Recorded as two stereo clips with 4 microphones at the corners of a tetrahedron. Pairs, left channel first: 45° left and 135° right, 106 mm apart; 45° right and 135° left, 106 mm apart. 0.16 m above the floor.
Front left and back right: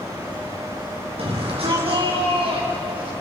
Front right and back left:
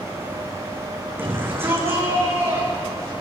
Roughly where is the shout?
Behind right.